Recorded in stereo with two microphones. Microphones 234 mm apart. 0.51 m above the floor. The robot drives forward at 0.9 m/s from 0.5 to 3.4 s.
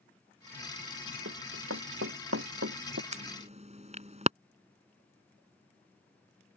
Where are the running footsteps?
80° right; by 3.0 s 75° right (ahead or behind).